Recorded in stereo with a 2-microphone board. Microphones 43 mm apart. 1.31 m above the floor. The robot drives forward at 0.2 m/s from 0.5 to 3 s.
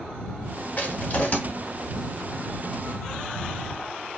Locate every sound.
0.8 s crushing: 35° left (ahead or behind), 1.2 m